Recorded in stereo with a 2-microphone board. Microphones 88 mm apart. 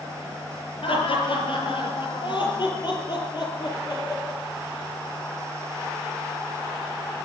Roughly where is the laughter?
Left.